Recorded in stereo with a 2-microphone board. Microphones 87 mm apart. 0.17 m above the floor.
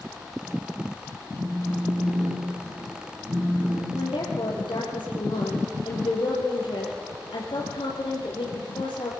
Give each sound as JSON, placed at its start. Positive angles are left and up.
{"t": 1.4, "sound": "a phone buzzing", "side_deg": -35, "distance_m": 8.5}
{"t": 4.0, "sound": "a woman speaking", "side_deg": 75, "distance_m": 4.5}